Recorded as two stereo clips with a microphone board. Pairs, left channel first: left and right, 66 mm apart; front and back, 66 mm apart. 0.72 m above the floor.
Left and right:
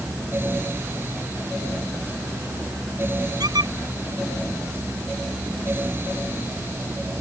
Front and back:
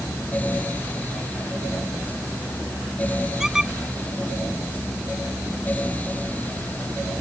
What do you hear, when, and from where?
3.4 s a squeak: 95° right